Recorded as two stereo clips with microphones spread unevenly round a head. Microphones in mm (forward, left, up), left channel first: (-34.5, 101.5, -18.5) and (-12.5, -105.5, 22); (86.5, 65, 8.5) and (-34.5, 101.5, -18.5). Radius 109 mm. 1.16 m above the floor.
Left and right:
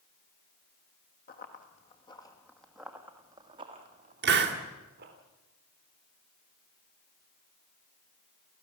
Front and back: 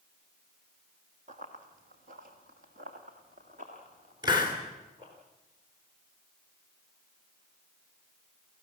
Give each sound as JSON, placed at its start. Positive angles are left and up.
{"t": 1.3, "sound": "running footsteps", "azimuth_deg": 145, "distance_m": 2.5}
{"t": 4.2, "sound": "a hiss", "azimuth_deg": -120, "distance_m": 2.5}